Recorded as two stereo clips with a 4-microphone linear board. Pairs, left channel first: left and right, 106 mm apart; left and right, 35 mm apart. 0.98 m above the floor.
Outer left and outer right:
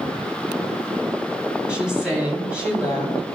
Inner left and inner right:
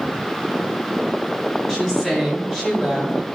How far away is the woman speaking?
About 7 m.